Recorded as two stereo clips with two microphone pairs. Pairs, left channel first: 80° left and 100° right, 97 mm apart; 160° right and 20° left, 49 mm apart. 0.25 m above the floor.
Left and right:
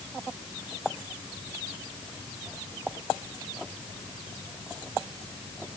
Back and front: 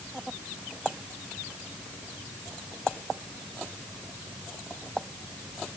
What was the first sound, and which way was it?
Only background noise.